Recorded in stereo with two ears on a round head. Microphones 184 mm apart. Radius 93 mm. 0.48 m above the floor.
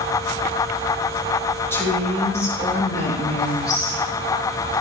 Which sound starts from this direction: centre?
A woman speaking, at 1.7 s.